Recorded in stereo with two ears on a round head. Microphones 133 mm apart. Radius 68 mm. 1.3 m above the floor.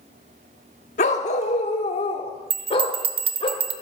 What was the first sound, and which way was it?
A dog barking, 50° left (ahead or behind).